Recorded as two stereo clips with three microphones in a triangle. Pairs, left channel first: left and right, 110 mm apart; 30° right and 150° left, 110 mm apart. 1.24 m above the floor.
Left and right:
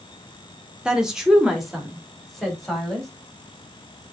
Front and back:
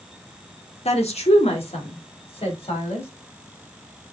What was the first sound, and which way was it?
A woman speaking, 5° right.